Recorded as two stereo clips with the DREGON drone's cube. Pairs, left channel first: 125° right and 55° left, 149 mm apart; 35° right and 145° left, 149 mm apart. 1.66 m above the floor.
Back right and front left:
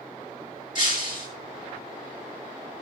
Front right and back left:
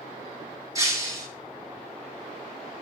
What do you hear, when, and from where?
0.8 s breaking glass: 150° right, 5 m